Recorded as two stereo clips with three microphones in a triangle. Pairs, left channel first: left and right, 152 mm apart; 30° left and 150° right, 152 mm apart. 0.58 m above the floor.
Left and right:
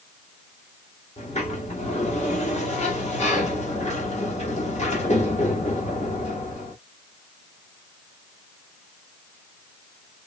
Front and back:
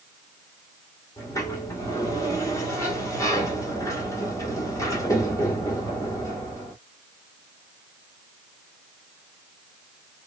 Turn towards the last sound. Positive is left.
turn(degrees=90)